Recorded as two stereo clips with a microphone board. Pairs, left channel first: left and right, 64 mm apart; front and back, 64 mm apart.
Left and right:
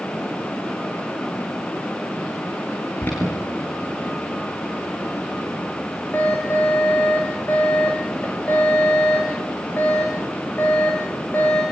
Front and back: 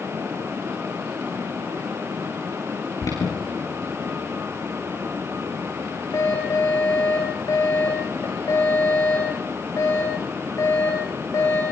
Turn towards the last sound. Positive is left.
turn(degrees=30)